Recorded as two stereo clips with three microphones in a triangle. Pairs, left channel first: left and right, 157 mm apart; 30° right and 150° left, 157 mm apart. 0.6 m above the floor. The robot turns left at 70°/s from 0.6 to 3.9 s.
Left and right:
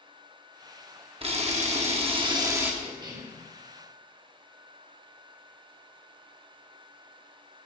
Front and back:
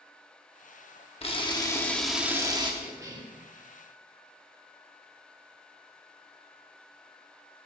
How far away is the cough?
About 1.3 m.